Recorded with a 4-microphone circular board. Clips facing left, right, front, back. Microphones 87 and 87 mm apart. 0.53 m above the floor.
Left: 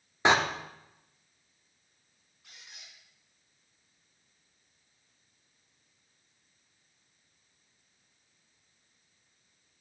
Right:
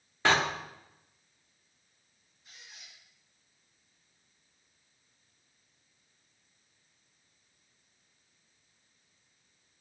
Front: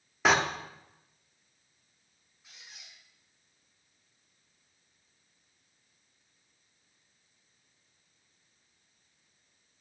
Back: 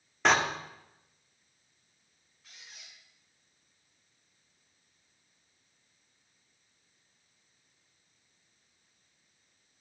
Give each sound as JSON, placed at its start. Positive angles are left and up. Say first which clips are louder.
{"t": 0.2, "sound": "a door slam", "louder": "left 2 dB, even", "azimuth_deg": 80, "distance_m": 0.7}
{"t": 2.4, "sound": "a squeak", "louder": "even, even", "azimuth_deg": 70, "distance_m": 3.5}